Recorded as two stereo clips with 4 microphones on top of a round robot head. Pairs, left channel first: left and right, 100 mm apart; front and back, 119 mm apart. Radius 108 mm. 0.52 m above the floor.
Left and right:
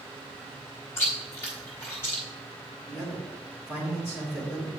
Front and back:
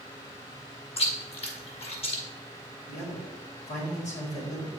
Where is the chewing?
30° left, 1.9 m.